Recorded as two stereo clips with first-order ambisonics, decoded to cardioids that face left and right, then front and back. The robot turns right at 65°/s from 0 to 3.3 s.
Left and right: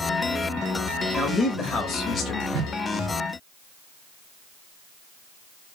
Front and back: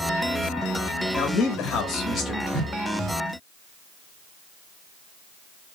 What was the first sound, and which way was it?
A man speaking, 10° left.